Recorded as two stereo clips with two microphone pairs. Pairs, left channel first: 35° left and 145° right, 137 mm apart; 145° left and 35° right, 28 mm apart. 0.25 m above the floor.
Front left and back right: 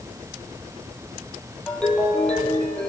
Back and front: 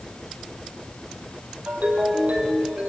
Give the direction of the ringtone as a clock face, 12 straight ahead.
2 o'clock.